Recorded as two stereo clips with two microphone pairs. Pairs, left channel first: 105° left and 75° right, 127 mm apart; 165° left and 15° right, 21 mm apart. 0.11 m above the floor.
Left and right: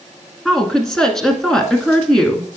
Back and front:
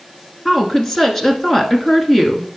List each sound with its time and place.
0.5 s a woman speaking: 175° right, 1.1 m